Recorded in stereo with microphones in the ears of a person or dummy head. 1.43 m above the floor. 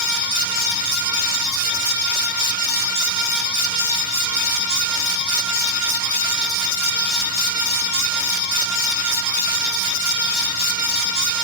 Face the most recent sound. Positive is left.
No sound to turn to.